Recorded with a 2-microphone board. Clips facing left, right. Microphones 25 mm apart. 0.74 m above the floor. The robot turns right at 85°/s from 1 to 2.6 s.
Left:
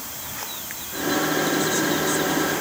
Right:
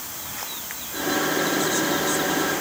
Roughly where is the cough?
No cough in this recording.